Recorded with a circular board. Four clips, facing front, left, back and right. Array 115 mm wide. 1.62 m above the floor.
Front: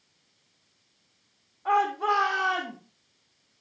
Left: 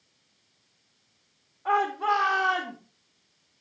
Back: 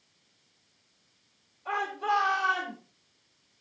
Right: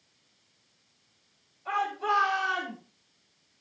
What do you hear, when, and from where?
1.6 s a shout: 45° left, 4.5 m; by 2.8 s 30° left, 4 m